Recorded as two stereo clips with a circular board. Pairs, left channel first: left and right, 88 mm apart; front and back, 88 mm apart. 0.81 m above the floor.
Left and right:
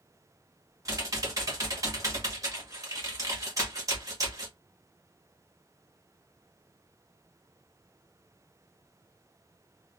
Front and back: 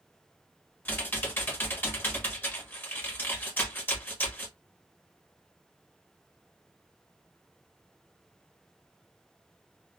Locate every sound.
0.8 s typing on a keyboard: 60° right, 1.0 m